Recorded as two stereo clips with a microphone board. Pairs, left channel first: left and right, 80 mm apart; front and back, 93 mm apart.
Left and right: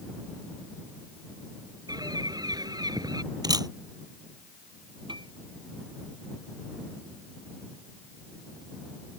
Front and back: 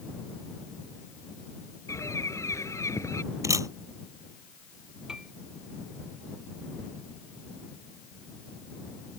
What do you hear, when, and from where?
1.9 s a bird: 55° right
3.4 s a camera shutter: 125° right
5.1 s a piano: 95° right